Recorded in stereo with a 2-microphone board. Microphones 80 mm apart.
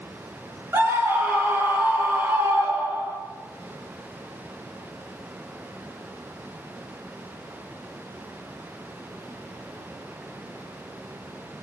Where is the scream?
30° right (ahead or behind), 6 m.